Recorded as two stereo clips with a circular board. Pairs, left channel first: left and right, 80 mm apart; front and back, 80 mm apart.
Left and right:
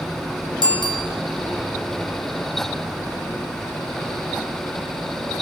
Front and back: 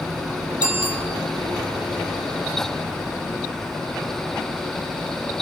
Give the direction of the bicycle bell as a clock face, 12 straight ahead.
9 o'clock.